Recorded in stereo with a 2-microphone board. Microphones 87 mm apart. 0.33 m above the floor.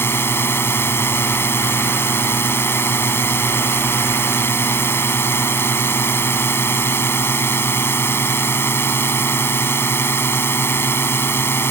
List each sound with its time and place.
0.0 s a drone: 25° left (ahead or behind)